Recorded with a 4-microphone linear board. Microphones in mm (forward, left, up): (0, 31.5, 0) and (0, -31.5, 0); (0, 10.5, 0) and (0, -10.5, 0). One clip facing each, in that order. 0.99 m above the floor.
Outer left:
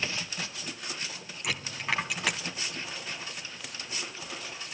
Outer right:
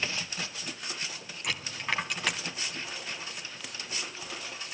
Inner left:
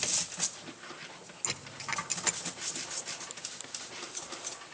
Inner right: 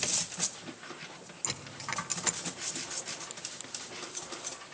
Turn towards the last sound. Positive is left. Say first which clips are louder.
# outer left 1 dB, inner left 1 dB
turn(degrees=0)  # may be behind; listen again after turning